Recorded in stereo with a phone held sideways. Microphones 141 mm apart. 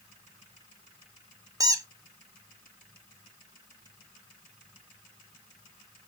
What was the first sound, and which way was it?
A squeak, 25° right (ahead or behind).